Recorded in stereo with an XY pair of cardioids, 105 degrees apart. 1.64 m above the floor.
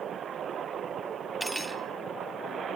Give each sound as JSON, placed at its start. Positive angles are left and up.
{"t": 1.4, "sound": "cutlery clinking", "azimuth_deg": 0, "distance_m": 2.0}